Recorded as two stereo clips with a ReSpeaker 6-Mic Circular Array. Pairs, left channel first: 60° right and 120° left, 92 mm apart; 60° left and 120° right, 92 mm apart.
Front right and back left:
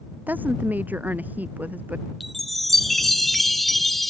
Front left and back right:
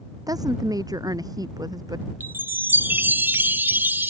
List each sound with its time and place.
0.3 s a woman speaking: 170° right; by 2.0 s 165° right
2.2 s a chime: 145° right